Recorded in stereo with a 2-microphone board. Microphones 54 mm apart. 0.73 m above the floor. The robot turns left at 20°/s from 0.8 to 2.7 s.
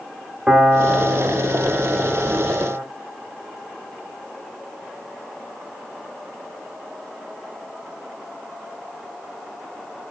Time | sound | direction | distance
0.5 | a piano | 60° right | 1.3 m